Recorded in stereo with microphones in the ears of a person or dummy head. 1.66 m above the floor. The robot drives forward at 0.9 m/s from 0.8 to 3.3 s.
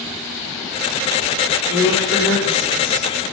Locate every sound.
1.7 s a woman speaking: 70° left (ahead or behind), 6 m; by 3.1 s 60° left (ahead or behind), 6.5 m